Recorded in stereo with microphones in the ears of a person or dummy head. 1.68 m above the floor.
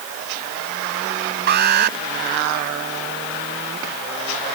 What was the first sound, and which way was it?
An alarm, 55° right (ahead or behind).